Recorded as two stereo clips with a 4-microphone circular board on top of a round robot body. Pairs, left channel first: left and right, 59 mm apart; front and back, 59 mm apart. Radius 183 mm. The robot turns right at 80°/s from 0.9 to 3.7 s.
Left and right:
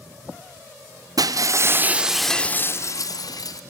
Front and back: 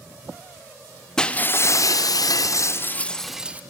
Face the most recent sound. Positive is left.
turn(degrees=120)